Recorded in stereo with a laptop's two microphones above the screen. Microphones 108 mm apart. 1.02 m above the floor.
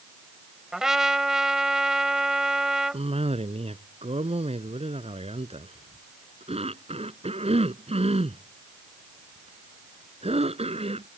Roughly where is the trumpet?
Centre.